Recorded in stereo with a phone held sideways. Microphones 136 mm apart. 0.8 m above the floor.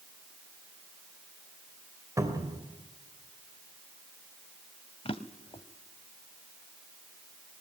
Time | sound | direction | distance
2.2 | a cupboard door | 25° right (ahead or behind) | 2.5 m
5.0 | a drawer | 45° left (ahead or behind) | 0.9 m